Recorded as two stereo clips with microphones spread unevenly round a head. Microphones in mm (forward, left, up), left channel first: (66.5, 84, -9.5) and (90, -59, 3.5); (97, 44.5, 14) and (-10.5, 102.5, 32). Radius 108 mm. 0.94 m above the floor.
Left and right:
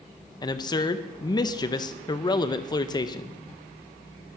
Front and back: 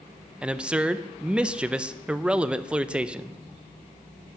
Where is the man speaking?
65° left, 0.6 m.